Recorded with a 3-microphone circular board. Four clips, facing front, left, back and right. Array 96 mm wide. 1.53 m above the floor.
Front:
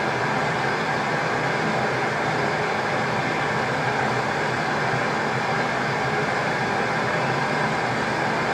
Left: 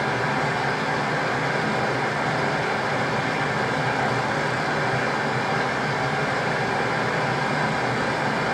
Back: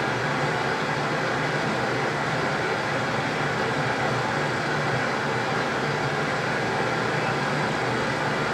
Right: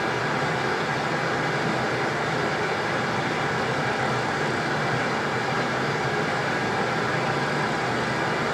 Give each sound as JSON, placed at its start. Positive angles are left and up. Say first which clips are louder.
{"t": 0.0, "sound": "running water", "louder": "left 2 dB, front 2 dB", "azimuth_deg": 20, "distance_m": 1.3}